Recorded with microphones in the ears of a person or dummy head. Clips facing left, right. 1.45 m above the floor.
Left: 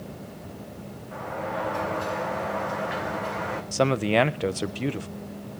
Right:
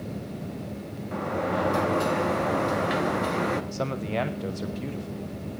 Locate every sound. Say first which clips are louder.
1.1 s a sliding door: right 4 dB; 50° right (ahead or behind), 1.2 m
3.7 s a man speaking: left 7 dB; 65° left (ahead or behind), 0.8 m